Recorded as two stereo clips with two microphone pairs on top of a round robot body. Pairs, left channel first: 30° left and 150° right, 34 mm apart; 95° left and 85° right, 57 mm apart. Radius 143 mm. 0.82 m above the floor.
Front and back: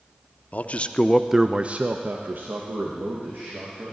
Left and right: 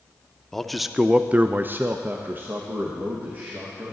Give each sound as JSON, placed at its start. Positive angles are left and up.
{"t": 0.5, "sound": "a man speaking", "azimuth_deg": 20, "distance_m": 0.7}